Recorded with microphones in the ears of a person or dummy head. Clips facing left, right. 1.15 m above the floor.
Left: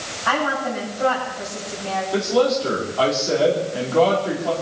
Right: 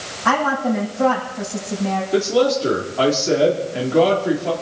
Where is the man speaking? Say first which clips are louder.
Right 1 dB; 30° right (ahead or behind), 3 m.